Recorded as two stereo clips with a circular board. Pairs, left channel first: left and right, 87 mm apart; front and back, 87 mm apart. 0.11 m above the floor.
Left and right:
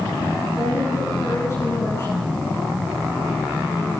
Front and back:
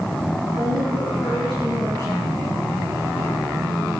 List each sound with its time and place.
0.5 s a woman speaking: 150° left, 7 m